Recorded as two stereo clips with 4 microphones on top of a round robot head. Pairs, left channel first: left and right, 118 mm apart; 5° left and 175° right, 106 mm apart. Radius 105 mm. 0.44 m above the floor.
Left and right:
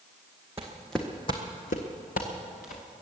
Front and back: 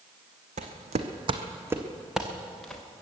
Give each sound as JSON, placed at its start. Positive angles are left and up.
{"t": 0.6, "sound": "footsteps", "azimuth_deg": -165, "distance_m": 1.5}